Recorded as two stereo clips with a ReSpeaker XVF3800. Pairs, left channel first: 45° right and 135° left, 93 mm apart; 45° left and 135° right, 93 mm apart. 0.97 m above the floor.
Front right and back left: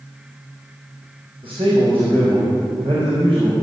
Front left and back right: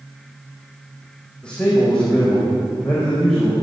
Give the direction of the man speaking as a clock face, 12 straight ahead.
8 o'clock.